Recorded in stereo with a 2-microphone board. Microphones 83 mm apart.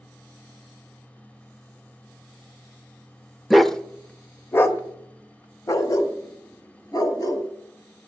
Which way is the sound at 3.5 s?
Centre (ahead or behind).